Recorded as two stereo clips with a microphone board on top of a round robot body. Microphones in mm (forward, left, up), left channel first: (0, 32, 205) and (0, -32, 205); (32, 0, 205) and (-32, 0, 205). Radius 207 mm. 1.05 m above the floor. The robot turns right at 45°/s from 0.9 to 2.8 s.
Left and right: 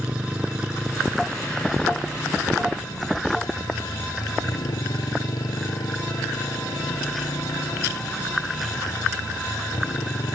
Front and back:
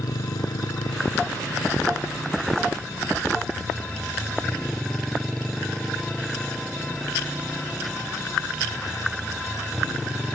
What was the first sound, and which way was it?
A motorcycle, 15° right.